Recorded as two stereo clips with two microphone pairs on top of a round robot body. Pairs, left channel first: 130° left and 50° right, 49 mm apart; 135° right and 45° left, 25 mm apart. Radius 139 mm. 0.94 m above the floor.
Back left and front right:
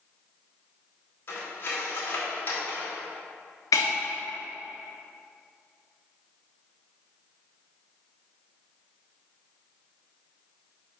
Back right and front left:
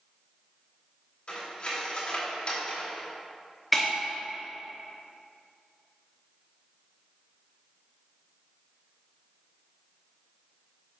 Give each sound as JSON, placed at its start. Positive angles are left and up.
{"t": 1.3, "sound": "cutlery clinking", "azimuth_deg": 175, "distance_m": 2.0}
{"t": 3.7, "sound": "breaking glass", "azimuth_deg": 135, "distance_m": 1.0}